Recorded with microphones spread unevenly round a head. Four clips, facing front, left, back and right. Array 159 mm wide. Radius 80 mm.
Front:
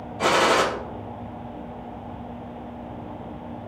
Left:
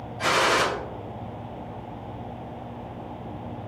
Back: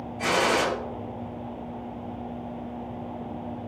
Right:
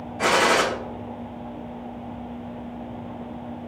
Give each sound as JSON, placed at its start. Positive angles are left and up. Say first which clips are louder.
{"t": 0.2, "sound": "a gunshot", "louder": "right 3 dB, front 4 dB", "azimuth_deg": -40, "distance_m": 0.5}